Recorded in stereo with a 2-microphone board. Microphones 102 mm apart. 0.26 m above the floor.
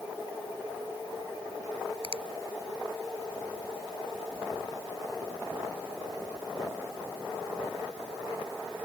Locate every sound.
2.0 s a finger snap: 65° right (ahead or behind)